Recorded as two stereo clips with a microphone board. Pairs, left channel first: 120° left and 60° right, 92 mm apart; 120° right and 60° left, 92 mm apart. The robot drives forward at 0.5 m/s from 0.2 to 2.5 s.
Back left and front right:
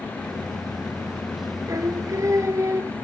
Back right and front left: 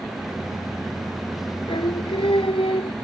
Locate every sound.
1.7 s singing: 110° right; by 2.9 s 115° right